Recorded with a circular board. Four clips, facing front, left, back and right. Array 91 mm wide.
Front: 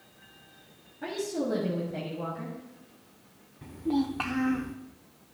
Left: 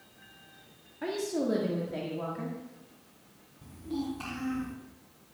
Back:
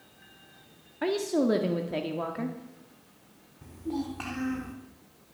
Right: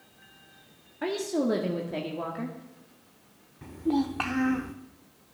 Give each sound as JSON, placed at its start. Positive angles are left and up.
{"t": 1.0, "sound": "a woman speaking", "azimuth_deg": -155, "distance_m": 1.6}
{"t": 3.6, "sound": "a child speaking", "azimuth_deg": -70, "distance_m": 1.0}